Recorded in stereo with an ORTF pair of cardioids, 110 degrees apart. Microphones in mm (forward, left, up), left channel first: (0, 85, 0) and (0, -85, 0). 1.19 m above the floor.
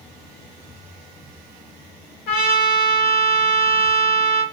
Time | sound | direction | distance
2.3 | a trumpet | 70° left | 1.9 m